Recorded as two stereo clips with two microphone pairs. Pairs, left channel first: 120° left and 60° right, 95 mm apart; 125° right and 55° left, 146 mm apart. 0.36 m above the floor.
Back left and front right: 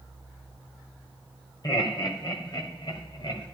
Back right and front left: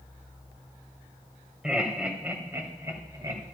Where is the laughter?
140° left, 2 m; by 3.4 s 115° left, 2.5 m.